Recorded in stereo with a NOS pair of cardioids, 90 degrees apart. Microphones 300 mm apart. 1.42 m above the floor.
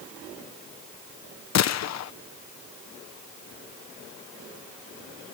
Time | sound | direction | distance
1.6 | a gunshot | 60° left | ?